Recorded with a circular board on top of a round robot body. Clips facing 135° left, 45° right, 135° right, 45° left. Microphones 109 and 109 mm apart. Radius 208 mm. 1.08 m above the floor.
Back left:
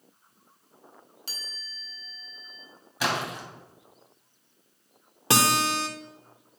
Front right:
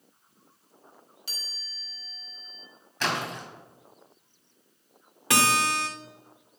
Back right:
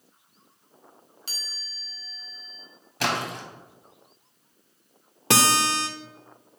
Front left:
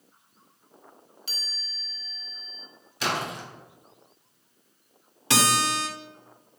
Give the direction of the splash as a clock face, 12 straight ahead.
5 o'clock.